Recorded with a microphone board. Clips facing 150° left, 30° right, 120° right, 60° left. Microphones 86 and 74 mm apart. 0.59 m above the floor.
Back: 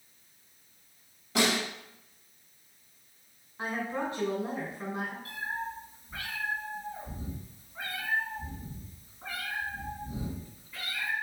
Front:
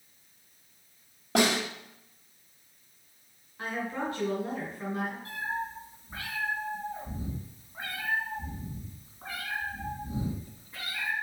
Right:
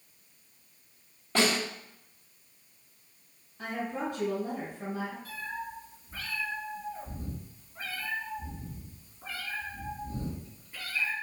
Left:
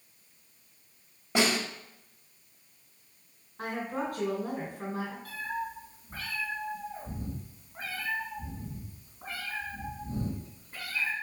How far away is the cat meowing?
About 3.5 m.